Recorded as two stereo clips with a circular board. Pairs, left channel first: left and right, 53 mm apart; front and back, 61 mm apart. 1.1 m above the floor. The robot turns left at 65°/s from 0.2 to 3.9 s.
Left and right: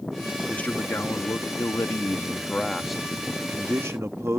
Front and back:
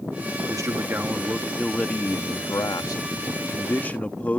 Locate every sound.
0.5 s a man speaking: 155° left; by 4.4 s 65° right